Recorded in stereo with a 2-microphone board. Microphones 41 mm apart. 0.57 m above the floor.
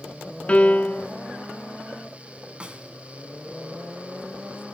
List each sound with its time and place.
0.5 s a piano: 30° left (ahead or behind), 1.4 m
2.6 s a snare drum: 25° right (ahead or behind), 2 m